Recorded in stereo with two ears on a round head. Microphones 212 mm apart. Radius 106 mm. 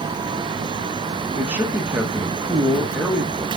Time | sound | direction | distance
1.4 | a man speaking | 5° right (ahead or behind) | 0.9 m